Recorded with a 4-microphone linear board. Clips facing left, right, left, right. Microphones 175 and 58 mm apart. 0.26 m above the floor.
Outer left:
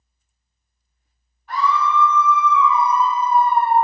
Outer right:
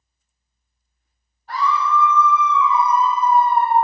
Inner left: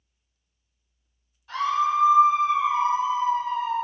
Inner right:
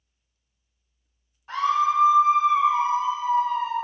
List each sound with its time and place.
1.5 s a scream: 40° right (ahead or behind), 1.3 m; by 3.7 s 45° left (ahead or behind), 2 m